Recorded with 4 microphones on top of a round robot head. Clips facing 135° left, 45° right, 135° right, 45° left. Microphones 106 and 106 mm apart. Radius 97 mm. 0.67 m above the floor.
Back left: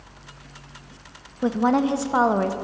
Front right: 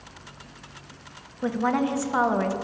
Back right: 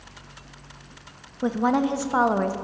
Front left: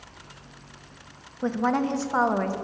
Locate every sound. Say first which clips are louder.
1.4 s a woman speaking: back left 4 dB, back right 2 dB; 160° left, 0.7 m